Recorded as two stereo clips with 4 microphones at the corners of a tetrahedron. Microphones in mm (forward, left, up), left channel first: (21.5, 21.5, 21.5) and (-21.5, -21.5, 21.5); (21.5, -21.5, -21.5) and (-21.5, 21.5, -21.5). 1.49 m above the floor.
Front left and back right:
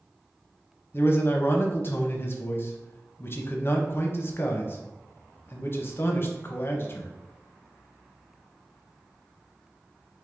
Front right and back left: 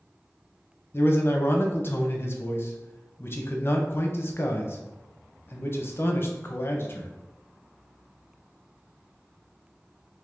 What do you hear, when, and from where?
0.9 s a man speaking: straight ahead, 0.6 m